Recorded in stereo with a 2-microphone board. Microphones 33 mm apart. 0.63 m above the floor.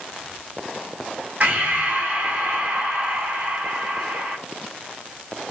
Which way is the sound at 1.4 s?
45° right (ahead or behind).